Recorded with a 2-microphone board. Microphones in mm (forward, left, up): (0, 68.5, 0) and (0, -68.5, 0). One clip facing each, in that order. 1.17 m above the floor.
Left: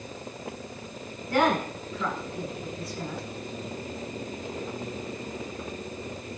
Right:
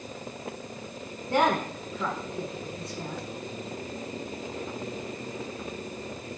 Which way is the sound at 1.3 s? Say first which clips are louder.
Even; 30° right (ahead or behind).